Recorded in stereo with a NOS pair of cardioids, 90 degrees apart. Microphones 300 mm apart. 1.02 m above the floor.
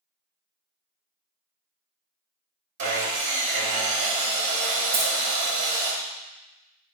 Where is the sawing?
50° right, 1.2 m.